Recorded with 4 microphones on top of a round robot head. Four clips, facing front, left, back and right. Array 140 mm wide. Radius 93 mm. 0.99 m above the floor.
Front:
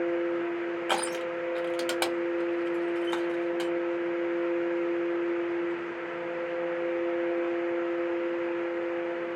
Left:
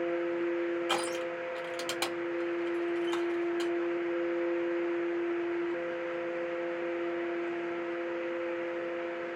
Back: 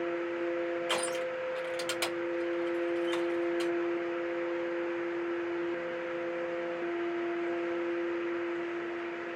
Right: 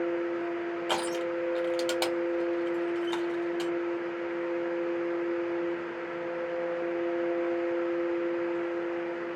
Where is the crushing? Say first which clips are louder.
Right 3 dB, front 3 dB; 25° right, 1.7 m.